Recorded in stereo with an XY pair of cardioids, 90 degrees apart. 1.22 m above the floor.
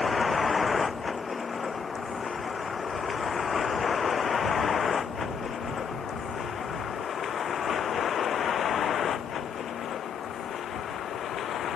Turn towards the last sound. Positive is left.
turn(degrees=75)